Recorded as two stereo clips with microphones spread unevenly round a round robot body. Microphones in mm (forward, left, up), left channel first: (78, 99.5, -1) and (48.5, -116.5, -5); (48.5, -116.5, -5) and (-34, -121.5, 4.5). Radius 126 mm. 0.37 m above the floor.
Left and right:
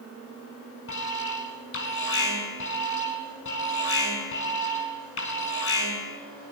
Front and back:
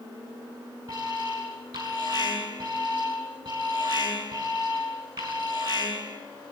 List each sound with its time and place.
0.9 s an alarm: 120° left, 5 m